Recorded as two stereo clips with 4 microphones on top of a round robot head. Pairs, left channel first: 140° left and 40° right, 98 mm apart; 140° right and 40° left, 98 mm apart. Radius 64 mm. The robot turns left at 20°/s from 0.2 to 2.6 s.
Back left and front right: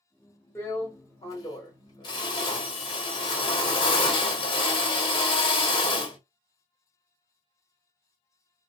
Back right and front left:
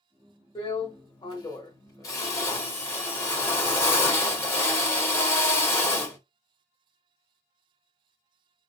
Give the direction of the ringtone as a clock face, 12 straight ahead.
I don't hear a ringtone.